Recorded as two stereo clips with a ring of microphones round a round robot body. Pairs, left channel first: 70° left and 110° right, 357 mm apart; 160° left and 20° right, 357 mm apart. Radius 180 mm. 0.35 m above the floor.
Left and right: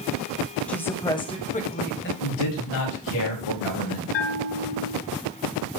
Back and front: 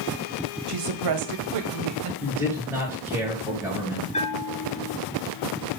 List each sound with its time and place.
0.7 s a woman speaking: 20° right, 1.9 m; by 2.1 s 15° left, 1.8 m
2.2 s a man speaking: 60° left, 6 m
4.1 s a bell: 85° left, 1.7 m